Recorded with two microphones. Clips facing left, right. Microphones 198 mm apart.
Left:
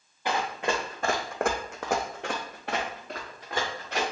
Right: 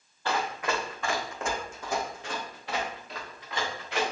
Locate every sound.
0.2 s running footsteps: 15° left (ahead or behind), 0.8 m; by 4.0 s 40° left (ahead or behind), 1.4 m